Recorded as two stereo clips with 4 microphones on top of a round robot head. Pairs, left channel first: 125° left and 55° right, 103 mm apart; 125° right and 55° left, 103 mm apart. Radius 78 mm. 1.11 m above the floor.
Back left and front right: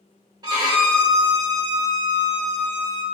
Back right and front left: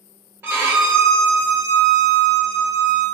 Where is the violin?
10° right, 0.9 m.